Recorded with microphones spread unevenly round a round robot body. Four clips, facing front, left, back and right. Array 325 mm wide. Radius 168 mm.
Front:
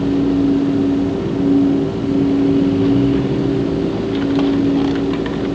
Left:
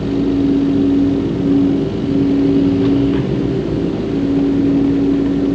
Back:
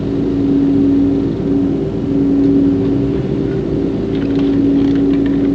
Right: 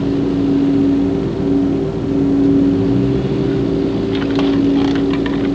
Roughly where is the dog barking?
I don't hear a dog barking.